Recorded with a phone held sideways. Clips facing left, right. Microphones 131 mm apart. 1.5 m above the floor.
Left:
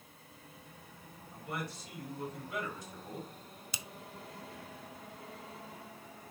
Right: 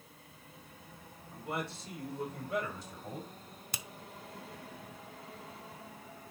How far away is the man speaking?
About 4 m.